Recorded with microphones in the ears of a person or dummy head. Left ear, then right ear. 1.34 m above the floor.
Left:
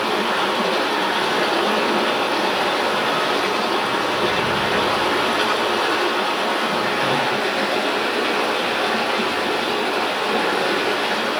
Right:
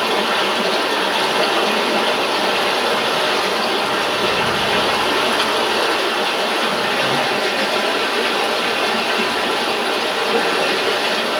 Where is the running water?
15° right (ahead or behind), 7.5 m.